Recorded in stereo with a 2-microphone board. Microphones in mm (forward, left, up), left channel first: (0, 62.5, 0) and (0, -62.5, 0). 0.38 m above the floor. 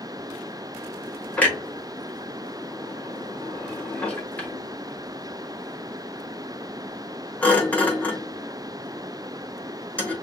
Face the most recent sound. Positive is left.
turn(degrees=10)  # may be behind; listen again after turning